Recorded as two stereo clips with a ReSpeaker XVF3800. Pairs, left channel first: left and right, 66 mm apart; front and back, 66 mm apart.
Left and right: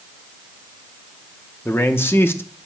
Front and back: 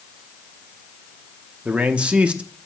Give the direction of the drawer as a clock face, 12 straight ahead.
I don't hear a drawer.